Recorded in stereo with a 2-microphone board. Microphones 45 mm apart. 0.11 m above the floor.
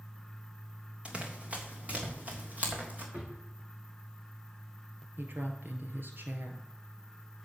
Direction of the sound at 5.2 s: 50° right (ahead or behind).